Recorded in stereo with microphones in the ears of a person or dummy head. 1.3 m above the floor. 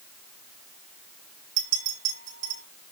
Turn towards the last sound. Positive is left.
turn(degrees=-60)  # may be behind; listen again after turning